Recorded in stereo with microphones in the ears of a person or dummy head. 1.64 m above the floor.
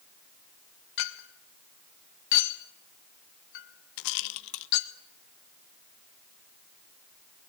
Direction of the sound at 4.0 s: 50° left (ahead or behind).